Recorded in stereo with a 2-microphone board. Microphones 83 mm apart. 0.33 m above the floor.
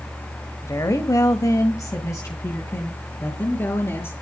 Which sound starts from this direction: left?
A woman speaking, at 0.6 s.